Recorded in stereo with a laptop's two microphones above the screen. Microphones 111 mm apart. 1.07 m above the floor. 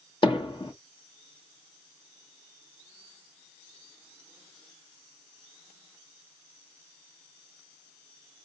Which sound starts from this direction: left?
Hammering, at 0.2 s.